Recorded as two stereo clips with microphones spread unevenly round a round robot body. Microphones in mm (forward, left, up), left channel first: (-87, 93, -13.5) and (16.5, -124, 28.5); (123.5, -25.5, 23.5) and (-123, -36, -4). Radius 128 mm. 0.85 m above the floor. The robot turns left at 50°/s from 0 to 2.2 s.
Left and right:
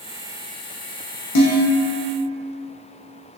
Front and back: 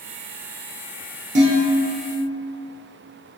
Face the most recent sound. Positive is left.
turn(degrees=80)